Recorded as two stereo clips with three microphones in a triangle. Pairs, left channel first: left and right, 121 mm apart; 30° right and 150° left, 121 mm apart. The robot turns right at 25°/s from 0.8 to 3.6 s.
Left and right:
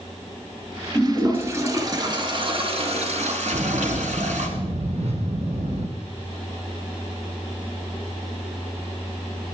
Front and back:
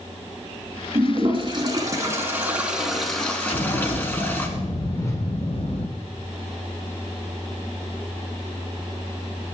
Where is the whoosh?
90° right, 2.5 m.